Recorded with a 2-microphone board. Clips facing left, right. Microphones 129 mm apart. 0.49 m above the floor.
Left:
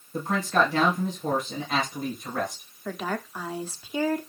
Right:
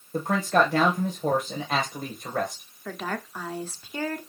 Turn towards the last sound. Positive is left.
turn(degrees=10)  # may be behind; listen again after turning